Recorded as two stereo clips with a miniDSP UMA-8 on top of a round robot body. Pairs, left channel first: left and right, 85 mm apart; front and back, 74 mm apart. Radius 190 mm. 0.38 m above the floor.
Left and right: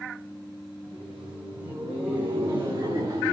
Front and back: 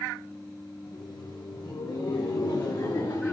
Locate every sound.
0.8 s laughter: 10° right, 4.5 m; by 3.3 s 40° right, 4 m